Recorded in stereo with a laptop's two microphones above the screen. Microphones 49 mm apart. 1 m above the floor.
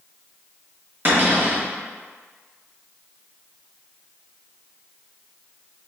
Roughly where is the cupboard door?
Right.